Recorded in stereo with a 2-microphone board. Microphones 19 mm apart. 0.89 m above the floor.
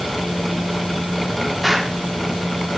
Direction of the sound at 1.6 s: Centre (ahead or behind).